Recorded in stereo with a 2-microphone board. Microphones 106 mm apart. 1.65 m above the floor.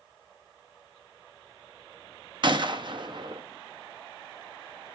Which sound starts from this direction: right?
A gunshot, at 2.4 s.